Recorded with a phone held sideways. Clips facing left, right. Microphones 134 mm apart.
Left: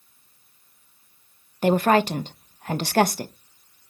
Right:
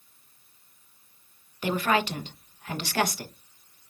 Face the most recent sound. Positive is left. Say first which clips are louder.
# left 7 dB
turn(degrees=45)  # may be behind; listen again after turning